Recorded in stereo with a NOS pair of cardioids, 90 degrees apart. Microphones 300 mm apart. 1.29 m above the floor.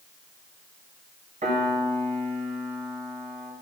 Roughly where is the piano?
Ahead right.